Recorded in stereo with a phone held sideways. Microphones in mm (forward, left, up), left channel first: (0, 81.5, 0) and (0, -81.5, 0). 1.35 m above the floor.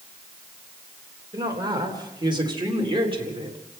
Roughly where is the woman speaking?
Right.